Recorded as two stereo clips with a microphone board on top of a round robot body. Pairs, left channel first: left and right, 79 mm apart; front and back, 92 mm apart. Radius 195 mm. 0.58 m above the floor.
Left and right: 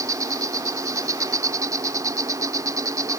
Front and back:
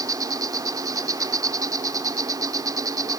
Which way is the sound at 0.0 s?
135° right.